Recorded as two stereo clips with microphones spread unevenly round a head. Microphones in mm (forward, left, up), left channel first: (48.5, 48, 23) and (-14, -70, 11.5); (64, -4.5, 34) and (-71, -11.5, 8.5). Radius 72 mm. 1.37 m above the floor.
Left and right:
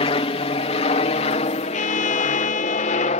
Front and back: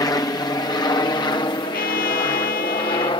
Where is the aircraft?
65° left; by 3.2 s 55° left.